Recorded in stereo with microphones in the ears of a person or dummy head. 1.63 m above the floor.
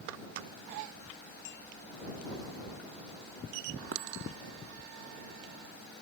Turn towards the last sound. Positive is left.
turn(degrees=-60)  # may be behind; listen again after turning